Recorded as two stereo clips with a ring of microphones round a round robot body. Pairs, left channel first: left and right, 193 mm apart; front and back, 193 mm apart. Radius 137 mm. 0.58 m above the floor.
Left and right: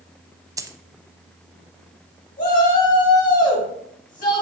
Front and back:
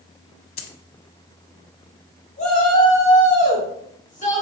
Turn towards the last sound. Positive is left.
turn(degrees=50)